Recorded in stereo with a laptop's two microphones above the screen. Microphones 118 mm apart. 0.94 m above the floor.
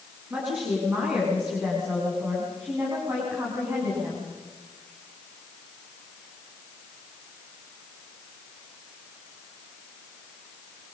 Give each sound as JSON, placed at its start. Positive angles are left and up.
{"t": 0.3, "sound": "a woman speaking", "side_deg": -15, "distance_m": 8.5}